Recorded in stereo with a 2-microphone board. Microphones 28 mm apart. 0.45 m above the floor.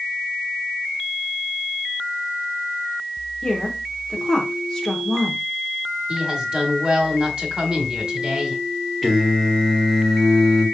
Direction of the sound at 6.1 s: 35° right (ahead or behind).